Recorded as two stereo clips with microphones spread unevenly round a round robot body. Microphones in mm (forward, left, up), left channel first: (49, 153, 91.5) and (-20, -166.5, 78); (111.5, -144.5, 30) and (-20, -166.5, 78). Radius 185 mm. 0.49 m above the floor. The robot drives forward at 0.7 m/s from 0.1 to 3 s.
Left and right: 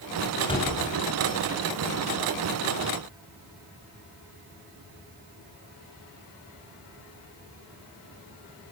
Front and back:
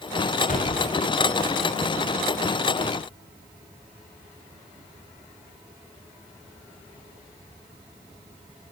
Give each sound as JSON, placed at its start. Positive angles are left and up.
{"t": 0.4, "sound": "a door slam", "azimuth_deg": 0, "distance_m": 5.5}